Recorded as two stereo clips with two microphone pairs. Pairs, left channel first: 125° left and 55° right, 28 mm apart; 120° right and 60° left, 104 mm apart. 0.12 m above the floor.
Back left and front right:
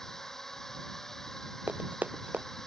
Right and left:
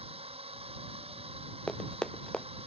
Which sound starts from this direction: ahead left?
A drone, at 0.0 s.